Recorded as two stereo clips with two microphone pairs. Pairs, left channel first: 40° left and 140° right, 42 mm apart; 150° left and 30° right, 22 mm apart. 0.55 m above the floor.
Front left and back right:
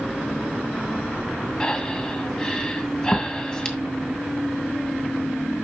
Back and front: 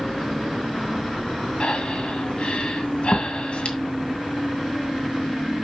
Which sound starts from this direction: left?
Breathing, at 1.6 s.